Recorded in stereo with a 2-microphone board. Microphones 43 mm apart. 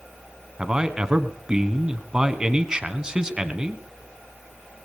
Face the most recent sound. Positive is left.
turn(degrees=-15)  # may be behind; listen again after turning